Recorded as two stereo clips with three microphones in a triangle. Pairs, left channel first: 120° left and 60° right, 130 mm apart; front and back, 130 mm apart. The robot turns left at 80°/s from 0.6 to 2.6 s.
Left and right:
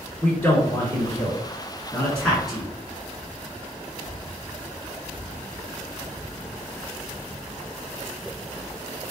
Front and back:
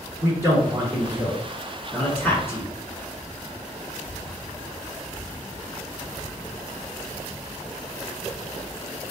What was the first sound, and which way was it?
A man speaking, straight behind.